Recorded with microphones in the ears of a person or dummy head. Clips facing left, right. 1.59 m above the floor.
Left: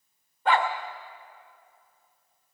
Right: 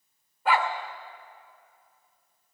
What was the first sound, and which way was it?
A dog barking, centre (ahead or behind).